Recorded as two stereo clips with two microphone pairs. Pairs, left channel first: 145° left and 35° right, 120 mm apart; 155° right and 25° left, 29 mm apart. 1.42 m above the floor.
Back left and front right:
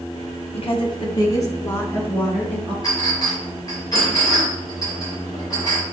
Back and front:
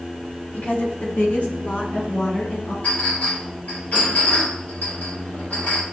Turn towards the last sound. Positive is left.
turn(degrees=-160)